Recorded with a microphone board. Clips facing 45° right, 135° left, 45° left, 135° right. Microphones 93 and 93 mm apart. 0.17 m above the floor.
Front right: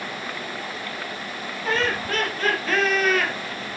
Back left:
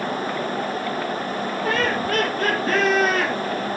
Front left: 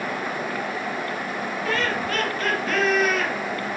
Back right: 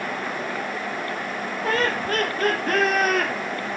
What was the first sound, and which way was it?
Laughter, 175° left.